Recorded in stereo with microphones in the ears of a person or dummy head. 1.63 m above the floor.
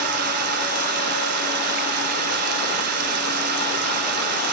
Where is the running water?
60° right (ahead or behind), 1.3 m.